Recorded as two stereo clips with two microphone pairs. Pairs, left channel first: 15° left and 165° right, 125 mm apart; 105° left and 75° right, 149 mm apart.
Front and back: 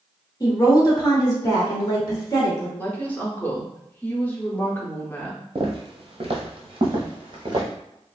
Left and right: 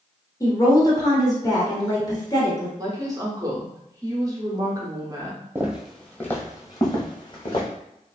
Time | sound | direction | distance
0.4 | a woman speaking | 55° left | 1.2 m
2.8 | a woman speaking | 45° right | 0.8 m
5.5 | footsteps | 145° right | 0.7 m